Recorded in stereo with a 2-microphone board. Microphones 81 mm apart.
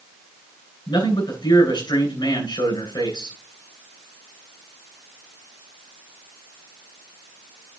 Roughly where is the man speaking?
Left.